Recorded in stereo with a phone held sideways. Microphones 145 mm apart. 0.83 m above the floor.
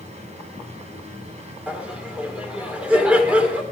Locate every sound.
0.0 s a machine running: 50° right (ahead or behind), 4 m
1.7 s laughter: 10° right (ahead or behind), 3 m